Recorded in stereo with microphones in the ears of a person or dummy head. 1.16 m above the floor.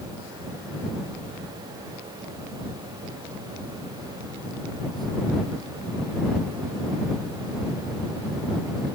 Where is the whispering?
I don't hear whispering.